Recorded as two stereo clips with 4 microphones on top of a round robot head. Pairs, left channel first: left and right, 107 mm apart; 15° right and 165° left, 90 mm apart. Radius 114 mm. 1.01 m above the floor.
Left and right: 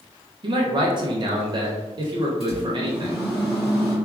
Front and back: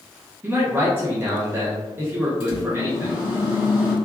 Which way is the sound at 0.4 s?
130° right.